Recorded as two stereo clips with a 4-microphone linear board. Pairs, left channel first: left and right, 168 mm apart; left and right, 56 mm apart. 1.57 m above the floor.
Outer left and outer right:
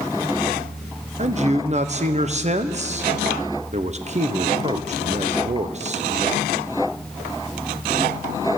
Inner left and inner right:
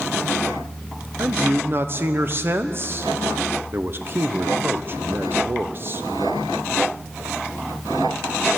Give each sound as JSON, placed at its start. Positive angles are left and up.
{"t": 1.2, "sound": "a man speaking", "side_deg": -40, "distance_m": 0.9}